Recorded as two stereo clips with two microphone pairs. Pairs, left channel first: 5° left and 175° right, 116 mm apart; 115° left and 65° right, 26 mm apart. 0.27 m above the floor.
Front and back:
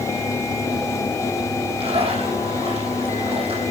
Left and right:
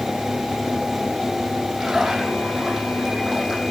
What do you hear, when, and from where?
1.8 s a splash: 145° right, 8 m